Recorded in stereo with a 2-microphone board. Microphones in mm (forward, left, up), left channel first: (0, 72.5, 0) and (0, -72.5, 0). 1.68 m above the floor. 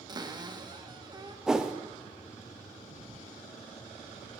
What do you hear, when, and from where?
0.1 s a cupboard door: 30° right (ahead or behind), 1.0 m
1.5 s a whoosh: 5° right (ahead or behind), 0.7 m